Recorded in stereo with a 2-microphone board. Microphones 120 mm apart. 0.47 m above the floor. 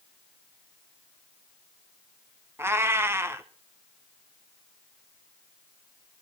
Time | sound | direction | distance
2.6 | a cat meowing | 20° right (ahead or behind) | 0.9 m